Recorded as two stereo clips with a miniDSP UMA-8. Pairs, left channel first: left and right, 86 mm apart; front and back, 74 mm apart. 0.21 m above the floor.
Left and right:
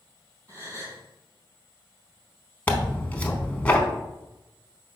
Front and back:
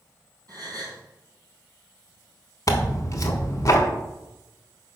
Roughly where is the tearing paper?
Ahead.